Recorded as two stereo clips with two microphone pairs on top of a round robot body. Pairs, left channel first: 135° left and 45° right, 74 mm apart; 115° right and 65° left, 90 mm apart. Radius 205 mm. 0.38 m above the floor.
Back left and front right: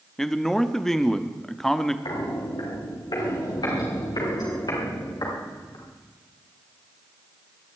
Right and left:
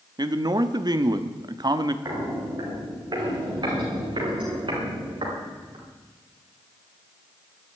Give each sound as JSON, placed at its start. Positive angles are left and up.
{"t": 0.2, "sound": "a man speaking", "azimuth_deg": 50, "distance_m": 1.3}
{"t": 2.0, "sound": "footsteps", "azimuth_deg": 115, "distance_m": 6.5}